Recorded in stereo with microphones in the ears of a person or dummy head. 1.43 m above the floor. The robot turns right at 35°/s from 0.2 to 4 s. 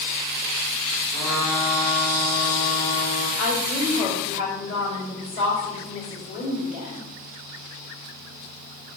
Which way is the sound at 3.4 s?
60° left (ahead or behind).